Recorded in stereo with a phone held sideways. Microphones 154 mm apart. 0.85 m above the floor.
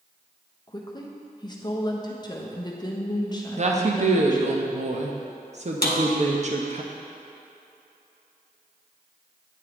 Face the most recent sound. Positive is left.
turn(degrees=80)